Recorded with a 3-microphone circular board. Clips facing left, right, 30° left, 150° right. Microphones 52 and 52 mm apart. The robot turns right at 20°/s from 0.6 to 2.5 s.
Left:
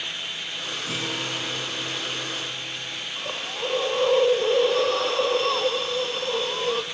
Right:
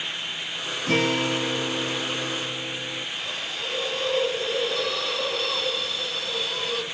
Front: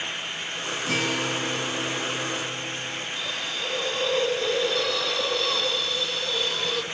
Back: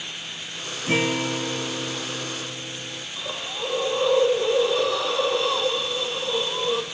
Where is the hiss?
140° left, 2 m.